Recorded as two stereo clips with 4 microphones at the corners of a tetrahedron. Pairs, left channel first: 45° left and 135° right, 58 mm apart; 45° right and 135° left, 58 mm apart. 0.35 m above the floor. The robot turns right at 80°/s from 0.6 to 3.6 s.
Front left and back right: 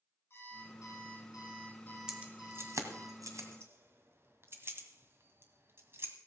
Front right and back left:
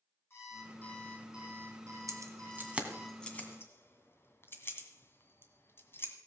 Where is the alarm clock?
Straight ahead, 6.5 m; by 3.1 s 160° right, 6.5 m.